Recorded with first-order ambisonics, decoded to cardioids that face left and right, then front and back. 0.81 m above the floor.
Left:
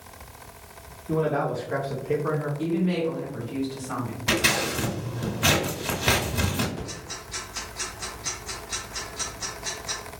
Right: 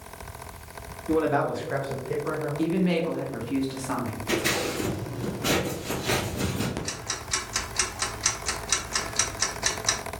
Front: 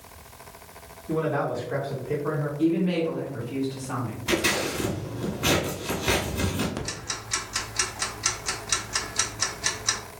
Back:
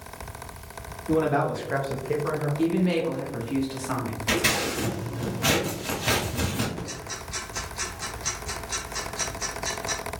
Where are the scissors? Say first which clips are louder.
Left 4 dB, even; 105° left, 1.2 m.